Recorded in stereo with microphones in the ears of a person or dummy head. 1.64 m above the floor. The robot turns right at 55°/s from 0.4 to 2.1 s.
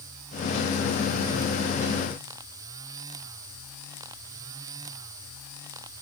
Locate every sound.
Only background noise.